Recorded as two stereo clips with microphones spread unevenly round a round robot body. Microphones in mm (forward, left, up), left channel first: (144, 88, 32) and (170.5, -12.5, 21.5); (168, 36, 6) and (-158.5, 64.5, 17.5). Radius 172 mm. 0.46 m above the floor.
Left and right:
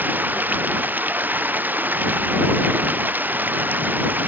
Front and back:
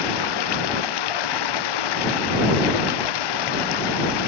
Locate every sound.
0.0 s running water: straight ahead